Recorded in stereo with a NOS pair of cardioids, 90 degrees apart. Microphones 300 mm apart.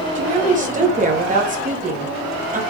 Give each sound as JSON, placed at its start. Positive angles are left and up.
{"t": 0.1, "sound": "a woman speaking", "azimuth_deg": -25, "distance_m": 0.8}